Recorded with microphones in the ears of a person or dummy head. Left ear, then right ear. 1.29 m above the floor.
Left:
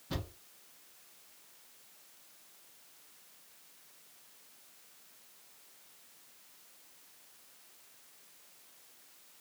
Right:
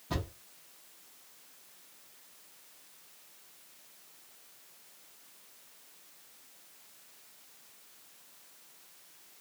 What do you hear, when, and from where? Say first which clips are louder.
0.1 s a thud: right 4 dB; 10° right (ahead or behind), 0.6 m